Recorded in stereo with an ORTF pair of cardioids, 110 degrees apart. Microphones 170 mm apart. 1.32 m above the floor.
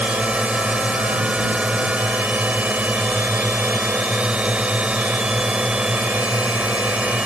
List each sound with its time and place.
0.0 s a drone: 5° right